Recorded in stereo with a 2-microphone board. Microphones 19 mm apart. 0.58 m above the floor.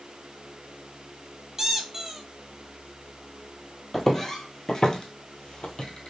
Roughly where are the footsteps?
Centre.